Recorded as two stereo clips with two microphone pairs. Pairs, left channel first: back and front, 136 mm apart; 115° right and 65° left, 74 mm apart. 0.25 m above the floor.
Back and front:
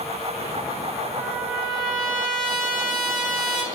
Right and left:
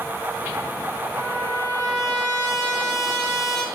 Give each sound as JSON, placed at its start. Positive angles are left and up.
{"t": 1.1, "sound": "a trumpet", "azimuth_deg": 95, "distance_m": 1.3}